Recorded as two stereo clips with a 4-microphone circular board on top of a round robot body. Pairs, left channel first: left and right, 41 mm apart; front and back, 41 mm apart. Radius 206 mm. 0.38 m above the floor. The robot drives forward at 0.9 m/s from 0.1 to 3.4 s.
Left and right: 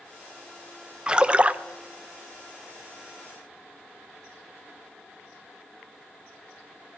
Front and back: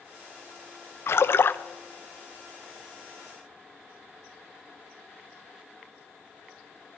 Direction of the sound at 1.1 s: 20° right.